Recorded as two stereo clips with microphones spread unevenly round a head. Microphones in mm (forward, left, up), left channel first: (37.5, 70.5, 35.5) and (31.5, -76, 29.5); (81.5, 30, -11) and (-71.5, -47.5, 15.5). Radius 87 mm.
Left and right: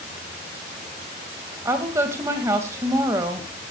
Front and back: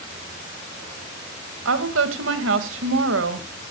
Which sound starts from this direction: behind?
A woman speaking, at 1.6 s.